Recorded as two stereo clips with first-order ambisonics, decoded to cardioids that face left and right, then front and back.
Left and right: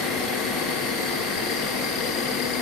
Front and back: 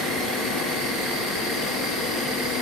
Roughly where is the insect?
Left.